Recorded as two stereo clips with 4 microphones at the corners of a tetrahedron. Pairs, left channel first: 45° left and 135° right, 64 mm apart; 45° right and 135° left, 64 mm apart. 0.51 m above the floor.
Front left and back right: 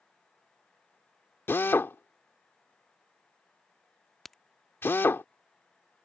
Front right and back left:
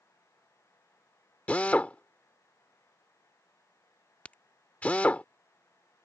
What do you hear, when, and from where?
1.5 s a drill: 15° left
4.2 s a crack: 35° right